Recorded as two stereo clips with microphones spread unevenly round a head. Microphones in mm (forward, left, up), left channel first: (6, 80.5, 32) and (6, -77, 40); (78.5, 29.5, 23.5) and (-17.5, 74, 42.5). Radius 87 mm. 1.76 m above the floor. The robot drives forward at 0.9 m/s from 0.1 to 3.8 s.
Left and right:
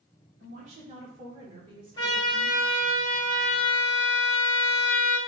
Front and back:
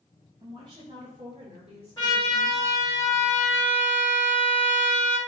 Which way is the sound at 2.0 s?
30° left.